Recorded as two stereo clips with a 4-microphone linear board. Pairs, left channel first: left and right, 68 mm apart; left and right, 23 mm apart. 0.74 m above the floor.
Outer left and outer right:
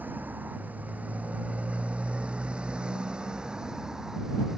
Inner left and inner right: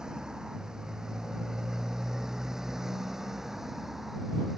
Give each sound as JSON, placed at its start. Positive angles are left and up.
{"t": 0.0, "sound": "a motorcycle", "side_deg": -30}